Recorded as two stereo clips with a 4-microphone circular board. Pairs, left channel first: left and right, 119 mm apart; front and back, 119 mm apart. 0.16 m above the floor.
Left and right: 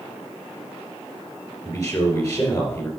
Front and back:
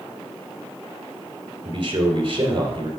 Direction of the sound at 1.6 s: 145° left.